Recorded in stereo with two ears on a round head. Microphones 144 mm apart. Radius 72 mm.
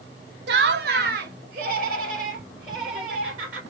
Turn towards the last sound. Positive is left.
turn(degrees=-55)  # may be behind; listen again after turning